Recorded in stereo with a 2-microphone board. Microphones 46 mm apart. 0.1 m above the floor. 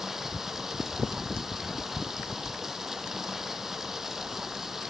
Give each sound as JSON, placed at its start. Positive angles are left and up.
{"t": 0.0, "sound": "running water", "side_deg": -10, "distance_m": 0.8}